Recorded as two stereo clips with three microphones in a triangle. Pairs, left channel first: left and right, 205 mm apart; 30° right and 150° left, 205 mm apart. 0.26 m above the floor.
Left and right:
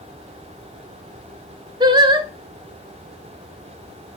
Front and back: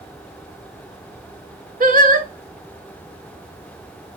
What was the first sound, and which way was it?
Singing, 160° right.